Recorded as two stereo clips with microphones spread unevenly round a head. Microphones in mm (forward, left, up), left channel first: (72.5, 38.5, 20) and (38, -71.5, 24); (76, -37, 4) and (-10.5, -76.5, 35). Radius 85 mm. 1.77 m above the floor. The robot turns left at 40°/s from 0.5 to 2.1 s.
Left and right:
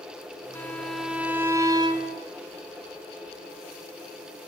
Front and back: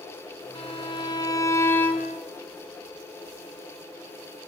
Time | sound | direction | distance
0.6 | a violin | 5° right | 3.5 m